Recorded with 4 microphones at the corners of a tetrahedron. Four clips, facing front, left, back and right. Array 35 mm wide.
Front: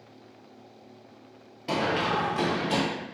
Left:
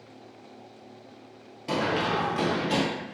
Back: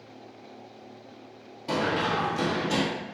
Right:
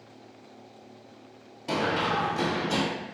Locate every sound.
1.7 s running footsteps: 10° left, 1.3 m; by 2.8 s 60° left, 1.7 m